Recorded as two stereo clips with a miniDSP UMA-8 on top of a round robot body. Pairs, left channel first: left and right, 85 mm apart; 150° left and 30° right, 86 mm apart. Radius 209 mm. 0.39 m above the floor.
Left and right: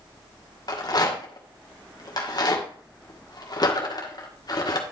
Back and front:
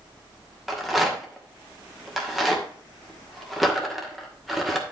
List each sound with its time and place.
0.7 s a rattle: 60° left, 2.5 m